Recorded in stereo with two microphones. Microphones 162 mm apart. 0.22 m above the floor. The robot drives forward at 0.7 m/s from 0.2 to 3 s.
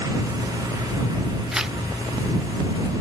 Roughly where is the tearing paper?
Centre.